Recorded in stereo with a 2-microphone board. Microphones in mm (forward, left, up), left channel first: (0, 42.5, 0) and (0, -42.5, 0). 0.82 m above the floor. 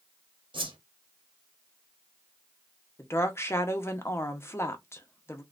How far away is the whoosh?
About 0.9 m.